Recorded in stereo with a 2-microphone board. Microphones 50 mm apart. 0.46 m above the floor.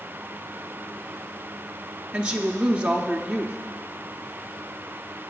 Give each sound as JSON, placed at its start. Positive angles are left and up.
{"t": 2.1, "sound": "a woman speaking", "side_deg": -20, "distance_m": 0.9}